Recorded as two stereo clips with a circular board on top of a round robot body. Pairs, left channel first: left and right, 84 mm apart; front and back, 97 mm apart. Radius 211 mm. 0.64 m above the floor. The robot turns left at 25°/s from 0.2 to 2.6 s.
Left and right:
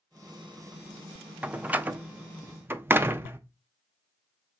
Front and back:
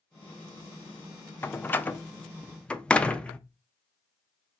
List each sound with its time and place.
1.4 s a door slam: 35° right, 0.6 m; by 3.4 s 65° right, 0.6 m